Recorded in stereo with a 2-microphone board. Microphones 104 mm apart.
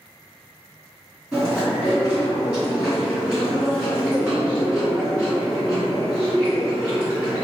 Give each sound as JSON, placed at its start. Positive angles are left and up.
{"t": 1.3, "sound": "chewing", "side_deg": -10, "distance_m": 1.5}